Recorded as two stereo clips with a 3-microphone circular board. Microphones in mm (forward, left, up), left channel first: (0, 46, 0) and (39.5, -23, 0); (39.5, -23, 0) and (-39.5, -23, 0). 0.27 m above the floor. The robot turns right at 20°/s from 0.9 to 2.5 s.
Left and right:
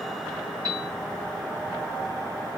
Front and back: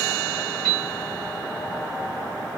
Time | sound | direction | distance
0.7 | a piano | 90° right | 2 m